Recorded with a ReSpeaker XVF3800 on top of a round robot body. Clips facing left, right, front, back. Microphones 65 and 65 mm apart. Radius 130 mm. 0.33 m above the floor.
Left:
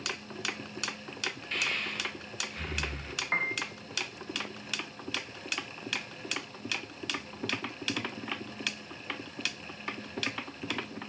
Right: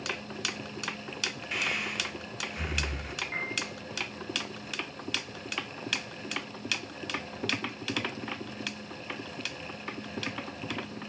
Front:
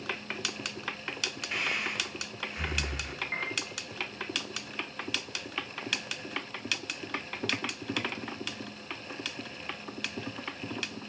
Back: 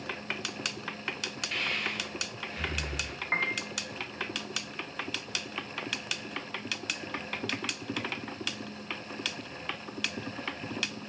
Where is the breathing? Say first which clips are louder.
Right 2 dB, front 1 dB; 35° right, 1.1 m.